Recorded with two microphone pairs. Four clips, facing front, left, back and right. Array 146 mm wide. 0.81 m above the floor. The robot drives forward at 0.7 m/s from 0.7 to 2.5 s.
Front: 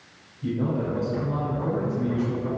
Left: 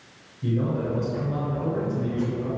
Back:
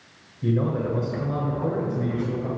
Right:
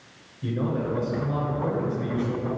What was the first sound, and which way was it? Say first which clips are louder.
A man speaking: left 1 dB, back 2 dB; 170° right.